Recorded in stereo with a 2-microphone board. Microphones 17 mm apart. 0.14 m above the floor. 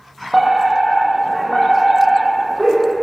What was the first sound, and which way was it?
A fire alarm, 10° left (ahead or behind).